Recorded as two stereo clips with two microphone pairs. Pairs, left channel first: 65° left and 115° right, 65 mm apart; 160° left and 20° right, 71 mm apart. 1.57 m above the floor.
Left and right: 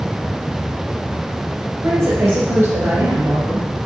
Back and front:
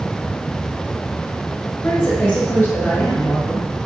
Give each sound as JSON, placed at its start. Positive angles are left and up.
{"t": 1.8, "sound": "a woman speaking", "azimuth_deg": -150, "distance_m": 1.6}